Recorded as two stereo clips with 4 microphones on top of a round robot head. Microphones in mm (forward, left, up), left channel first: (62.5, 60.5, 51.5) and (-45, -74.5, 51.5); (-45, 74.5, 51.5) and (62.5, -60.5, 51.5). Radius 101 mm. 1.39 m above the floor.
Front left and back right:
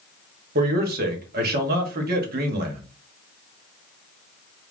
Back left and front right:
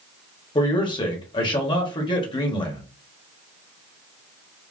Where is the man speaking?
165° right, 1.0 m.